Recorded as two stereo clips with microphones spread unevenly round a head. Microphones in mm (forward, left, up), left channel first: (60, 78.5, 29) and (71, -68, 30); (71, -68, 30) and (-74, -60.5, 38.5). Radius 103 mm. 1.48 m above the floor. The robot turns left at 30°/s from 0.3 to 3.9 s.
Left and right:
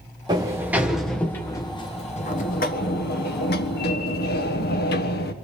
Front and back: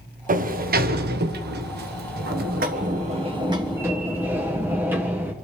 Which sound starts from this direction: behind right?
A sliding door, at 0.3 s.